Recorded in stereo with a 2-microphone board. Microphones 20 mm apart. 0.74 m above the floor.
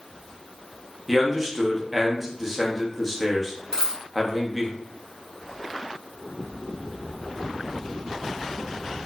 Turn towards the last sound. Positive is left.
turn(degrees=25)  # may be behind; listen again after turning